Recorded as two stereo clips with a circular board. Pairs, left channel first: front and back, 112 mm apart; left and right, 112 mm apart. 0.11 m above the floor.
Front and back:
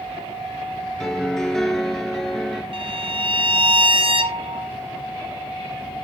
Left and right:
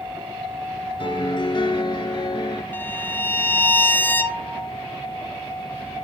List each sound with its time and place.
1.0 s a piano: 85° left, 1.1 m
2.7 s a violin: 160° left, 0.8 m